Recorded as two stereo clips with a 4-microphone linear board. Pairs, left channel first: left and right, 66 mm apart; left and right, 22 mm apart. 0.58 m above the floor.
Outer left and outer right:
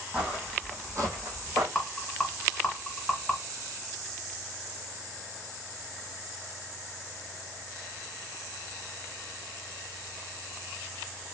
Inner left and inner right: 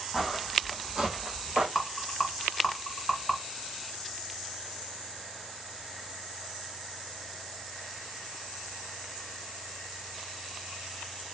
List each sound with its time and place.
0.1 s footsteps: 20° right (ahead or behind), 1.4 m; by 1.6 s 70° right (ahead or behind), 1.3 m
1.8 s a rattle: 10° left (ahead or behind), 1.4 m